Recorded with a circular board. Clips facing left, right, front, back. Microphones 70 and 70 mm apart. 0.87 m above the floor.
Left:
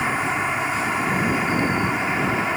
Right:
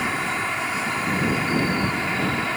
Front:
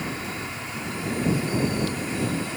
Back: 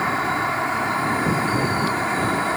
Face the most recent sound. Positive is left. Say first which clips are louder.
# left 2 dB, back 10 dB
turn(degrees=165)